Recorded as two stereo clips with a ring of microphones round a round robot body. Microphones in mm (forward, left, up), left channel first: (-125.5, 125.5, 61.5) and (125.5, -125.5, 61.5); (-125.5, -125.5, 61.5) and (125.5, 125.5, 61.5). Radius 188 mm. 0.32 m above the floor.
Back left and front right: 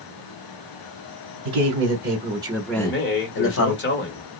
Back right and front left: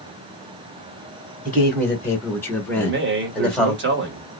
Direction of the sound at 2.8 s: 90° left.